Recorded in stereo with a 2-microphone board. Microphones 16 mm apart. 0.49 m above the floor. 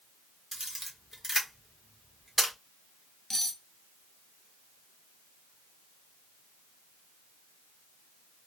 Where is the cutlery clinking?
15° left (ahead or behind), 0.6 m.